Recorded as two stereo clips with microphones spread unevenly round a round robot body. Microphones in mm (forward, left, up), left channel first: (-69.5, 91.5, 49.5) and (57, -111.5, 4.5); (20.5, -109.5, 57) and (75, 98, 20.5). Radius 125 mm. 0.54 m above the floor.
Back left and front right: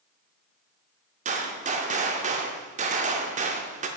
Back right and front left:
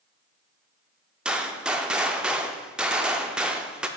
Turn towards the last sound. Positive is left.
turn(degrees=-5)